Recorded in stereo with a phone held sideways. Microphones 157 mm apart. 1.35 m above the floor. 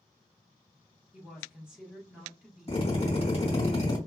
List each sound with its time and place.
1.1 s a woman speaking: 5° right (ahead or behind), 1.4 m
2.7 s a drill: 40° left (ahead or behind), 2.5 m